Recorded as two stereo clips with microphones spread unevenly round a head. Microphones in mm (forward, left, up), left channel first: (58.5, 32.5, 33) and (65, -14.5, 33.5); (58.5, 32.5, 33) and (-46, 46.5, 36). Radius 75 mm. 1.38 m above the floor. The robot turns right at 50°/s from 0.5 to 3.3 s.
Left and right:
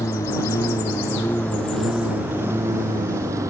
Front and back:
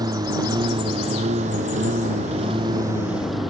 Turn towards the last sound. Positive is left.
turn(degrees=-100)